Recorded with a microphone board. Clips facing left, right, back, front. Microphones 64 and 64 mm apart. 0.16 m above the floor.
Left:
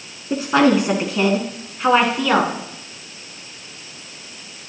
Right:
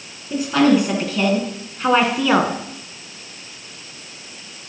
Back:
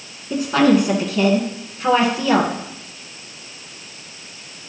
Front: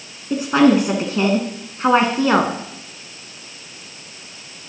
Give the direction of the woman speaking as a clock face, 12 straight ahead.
10 o'clock.